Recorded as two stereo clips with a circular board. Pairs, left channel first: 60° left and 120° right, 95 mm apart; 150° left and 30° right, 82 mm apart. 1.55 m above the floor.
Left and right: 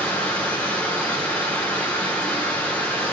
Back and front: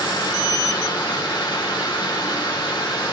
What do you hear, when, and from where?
0.0 s running water: 135° left, 3 m